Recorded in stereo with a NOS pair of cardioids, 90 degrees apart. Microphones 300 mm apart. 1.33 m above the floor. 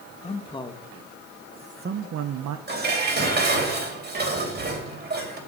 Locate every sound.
0.2 s a man speaking: 20° left, 2.5 m; by 2.6 s 80° right, 1.2 m
2.7 s dishes clattering: 35° right, 4.5 m